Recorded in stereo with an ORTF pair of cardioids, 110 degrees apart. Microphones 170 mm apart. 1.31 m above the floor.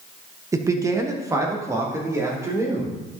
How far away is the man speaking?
About 1.0 m.